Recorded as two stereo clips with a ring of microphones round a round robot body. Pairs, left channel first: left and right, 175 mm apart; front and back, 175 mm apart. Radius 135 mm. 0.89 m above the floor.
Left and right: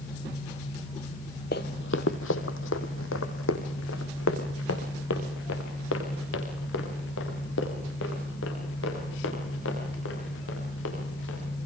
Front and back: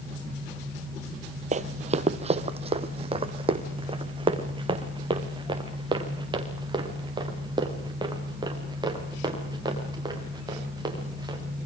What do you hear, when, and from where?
1.5 s running footsteps: 140° left, 1.5 m; by 11.4 s 115° left, 11 m